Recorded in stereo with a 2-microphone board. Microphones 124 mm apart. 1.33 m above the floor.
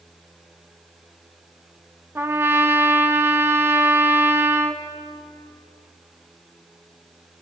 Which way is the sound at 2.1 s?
20° right (ahead or behind).